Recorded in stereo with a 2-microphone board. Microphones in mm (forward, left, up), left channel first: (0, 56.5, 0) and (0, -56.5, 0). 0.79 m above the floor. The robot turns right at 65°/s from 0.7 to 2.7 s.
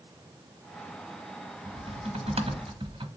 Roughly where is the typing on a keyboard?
Behind right.